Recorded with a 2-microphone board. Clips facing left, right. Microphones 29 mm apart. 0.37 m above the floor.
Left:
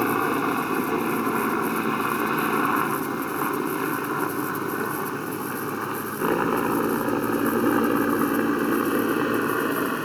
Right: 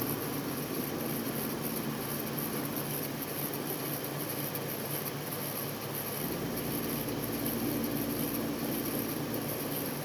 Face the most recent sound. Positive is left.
turn(degrees=70)  # may be behind; listen again after turning